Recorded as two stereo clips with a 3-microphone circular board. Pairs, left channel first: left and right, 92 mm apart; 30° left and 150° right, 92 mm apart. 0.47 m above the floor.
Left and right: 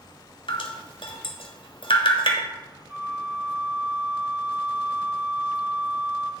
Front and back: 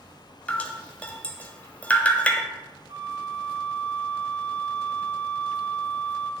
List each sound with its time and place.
0.5 s dripping: 105° left, 1.1 m
2.9 s a flute: 165° right, 1.4 m